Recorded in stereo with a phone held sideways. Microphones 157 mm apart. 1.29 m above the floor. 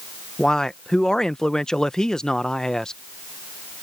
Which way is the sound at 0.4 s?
5° left (ahead or behind).